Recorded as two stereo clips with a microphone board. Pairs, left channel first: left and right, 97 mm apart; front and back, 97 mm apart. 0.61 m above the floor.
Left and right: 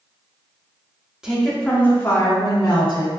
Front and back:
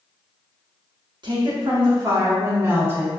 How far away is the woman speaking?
About 1.0 m.